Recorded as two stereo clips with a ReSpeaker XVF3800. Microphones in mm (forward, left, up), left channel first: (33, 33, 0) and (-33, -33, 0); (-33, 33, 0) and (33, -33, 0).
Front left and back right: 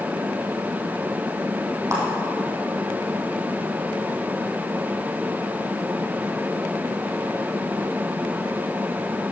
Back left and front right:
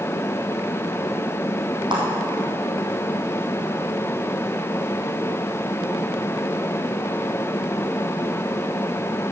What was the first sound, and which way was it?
A clap, 80° right.